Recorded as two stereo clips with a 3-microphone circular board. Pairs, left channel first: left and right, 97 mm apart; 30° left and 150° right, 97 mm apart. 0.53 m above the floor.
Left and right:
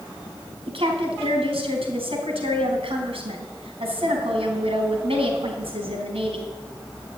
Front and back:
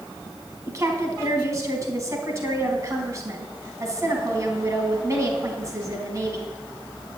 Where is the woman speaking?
95° right, 4 m.